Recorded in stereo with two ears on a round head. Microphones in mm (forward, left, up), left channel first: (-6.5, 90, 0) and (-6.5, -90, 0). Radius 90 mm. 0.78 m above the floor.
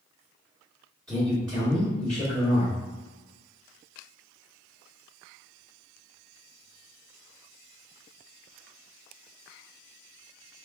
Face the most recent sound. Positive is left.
turn(degrees=5)  # may be behind; listen again after turning